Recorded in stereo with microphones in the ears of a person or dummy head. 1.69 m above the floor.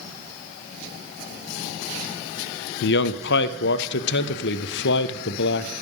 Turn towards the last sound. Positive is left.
turn(degrees=65)  # may be behind; listen again after turning